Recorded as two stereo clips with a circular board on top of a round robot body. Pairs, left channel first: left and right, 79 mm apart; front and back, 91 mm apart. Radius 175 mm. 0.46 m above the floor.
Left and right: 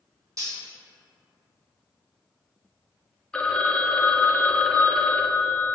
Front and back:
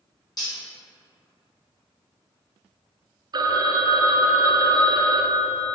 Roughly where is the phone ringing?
Behind.